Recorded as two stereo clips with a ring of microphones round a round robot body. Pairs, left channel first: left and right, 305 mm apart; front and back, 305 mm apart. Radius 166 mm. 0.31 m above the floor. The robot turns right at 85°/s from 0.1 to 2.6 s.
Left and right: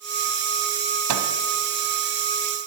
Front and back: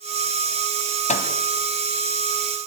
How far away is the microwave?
About 2 m.